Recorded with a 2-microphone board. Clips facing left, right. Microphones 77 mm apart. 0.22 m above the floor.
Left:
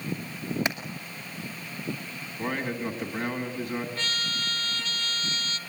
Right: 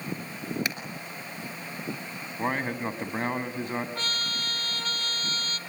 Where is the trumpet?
40° right (ahead or behind), 1.1 m.